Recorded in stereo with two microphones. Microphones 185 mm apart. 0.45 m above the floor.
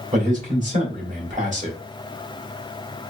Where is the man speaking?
45° right (ahead or behind), 2 m.